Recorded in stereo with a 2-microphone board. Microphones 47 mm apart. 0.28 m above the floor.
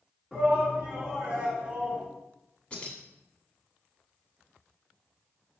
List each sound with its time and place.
0.3 s a shout: 10° right (ahead or behind), 3 m; by 2.0 s 30° right (ahead or behind), 3.5 m
2.7 s keys jangling: 25° left (ahead or behind), 1.4 m